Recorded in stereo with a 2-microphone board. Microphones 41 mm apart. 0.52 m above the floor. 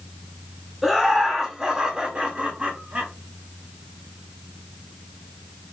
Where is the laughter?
5° right (ahead or behind), 1.9 m; by 3.1 s 40° right (ahead or behind), 1.8 m.